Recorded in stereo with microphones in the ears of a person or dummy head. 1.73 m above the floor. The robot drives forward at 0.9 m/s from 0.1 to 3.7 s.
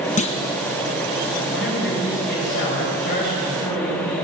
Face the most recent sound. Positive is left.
turn(degrees=45)  # may be behind; listen again after turning